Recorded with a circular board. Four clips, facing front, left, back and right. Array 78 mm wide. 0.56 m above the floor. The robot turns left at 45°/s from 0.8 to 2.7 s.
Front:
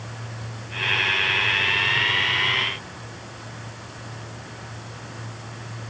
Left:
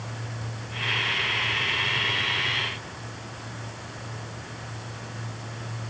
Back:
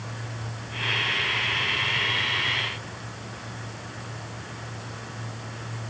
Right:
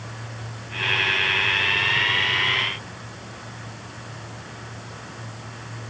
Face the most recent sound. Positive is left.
No sound to turn to.